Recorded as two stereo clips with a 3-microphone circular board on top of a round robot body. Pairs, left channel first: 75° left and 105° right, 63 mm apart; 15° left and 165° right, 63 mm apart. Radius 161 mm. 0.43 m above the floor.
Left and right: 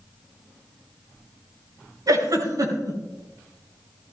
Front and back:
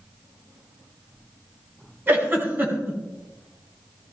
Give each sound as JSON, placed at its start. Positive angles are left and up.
{"t": 2.1, "sound": "a giggle", "azimuth_deg": -105, "distance_m": 4.0}